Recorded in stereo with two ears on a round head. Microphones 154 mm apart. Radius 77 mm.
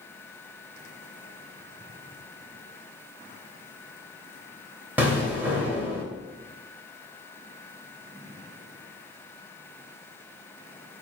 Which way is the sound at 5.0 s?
10° right (ahead or behind).